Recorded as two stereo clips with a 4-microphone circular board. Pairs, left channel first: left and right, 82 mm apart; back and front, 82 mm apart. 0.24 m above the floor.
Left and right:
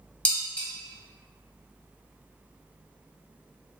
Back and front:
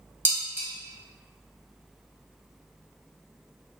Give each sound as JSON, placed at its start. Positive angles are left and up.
{"t": 0.2, "sound": "dishes clattering", "azimuth_deg": 35, "distance_m": 0.7}